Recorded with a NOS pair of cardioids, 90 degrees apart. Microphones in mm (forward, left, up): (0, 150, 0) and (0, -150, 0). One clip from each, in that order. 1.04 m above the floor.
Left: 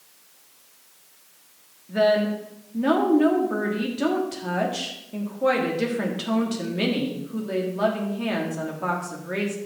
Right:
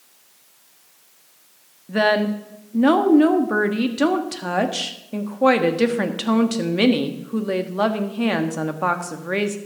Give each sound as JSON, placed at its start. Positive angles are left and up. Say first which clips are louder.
{"t": 1.9, "sound": "a woman speaking", "louder": "right 2 dB", "azimuth_deg": -45, "distance_m": 1.5}